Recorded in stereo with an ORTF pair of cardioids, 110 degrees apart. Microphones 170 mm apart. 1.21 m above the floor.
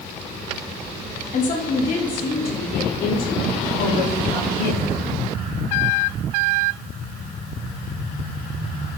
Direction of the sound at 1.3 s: 50° left.